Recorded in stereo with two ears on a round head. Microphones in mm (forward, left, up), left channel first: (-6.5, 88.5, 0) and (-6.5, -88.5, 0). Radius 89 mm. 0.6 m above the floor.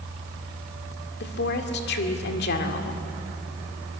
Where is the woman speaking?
55° left (ahead or behind), 2.0 m.